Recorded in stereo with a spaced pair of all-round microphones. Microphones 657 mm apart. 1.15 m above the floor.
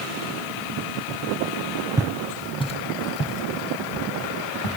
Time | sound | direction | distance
2.0 | footsteps | 5° right (ahead or behind) | 1.8 m